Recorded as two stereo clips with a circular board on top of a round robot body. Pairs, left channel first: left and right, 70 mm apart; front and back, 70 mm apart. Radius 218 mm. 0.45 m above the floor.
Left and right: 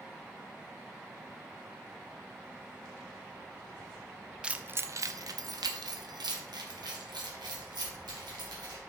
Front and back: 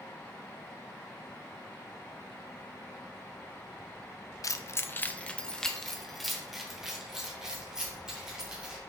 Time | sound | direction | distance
4.4 | keys jangling | 15° right | 0.7 m